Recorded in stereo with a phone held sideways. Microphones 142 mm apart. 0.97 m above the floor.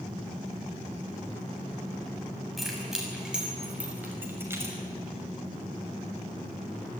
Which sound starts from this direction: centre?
Keys jangling, at 2.6 s.